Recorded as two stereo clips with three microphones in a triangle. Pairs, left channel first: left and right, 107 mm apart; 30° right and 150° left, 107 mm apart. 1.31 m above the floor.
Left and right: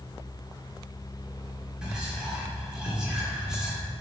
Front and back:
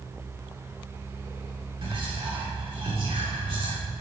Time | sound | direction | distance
1.8 | whispering | 170° right | 3.5 m